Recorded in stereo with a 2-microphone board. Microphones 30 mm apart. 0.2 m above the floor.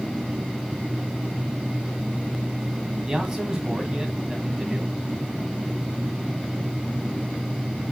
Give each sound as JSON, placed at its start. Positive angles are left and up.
{"t": 3.1, "sound": "a man speaking", "side_deg": -20, "distance_m": 1.6}